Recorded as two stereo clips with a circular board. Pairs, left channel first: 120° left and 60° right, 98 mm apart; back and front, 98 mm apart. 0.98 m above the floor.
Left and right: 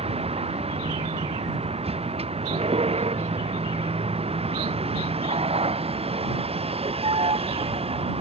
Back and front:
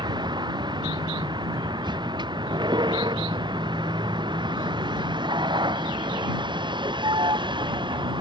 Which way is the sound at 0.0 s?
45° right.